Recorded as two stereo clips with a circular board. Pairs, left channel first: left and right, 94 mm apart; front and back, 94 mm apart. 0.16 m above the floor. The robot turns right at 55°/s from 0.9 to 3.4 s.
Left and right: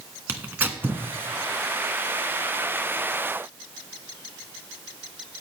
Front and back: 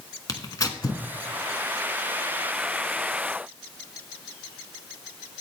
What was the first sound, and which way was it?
Tearing paper, 30° right.